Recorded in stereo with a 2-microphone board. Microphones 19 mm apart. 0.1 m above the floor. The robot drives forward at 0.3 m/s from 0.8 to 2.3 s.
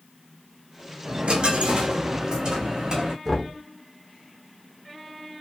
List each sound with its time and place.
1.1 s a dropped coin: 75° right (ahead or behind), 0.6 m; by 3.1 s 50° right (ahead or behind), 0.8 m
3.2 s knocking: 5° left (ahead or behind), 1.0 m